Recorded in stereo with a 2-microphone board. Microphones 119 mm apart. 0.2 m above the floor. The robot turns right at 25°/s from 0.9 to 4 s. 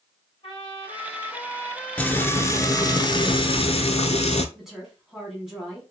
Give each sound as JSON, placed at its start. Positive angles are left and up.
{"t": 0.4, "sound": "a trumpet", "azimuth_deg": 85, "distance_m": 1.6}
{"t": 2.0, "sound": "frying", "azimuth_deg": 10, "distance_m": 0.6}
{"t": 4.5, "sound": "a woman speaking", "side_deg": -5, "distance_m": 1.9}